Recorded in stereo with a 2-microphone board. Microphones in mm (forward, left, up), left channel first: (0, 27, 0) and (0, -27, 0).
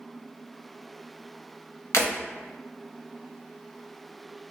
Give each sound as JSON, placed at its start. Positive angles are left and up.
{"t": 1.9, "sound": "breaking glass", "side_deg": 70, "distance_m": 0.7}